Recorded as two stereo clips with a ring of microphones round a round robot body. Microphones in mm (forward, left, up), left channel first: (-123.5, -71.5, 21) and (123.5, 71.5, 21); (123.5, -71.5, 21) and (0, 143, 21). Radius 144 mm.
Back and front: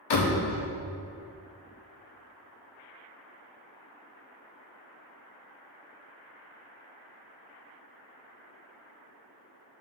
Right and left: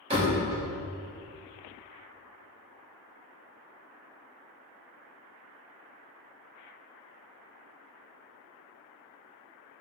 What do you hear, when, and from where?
0.1 s a door slam: 170° right, 0.9 m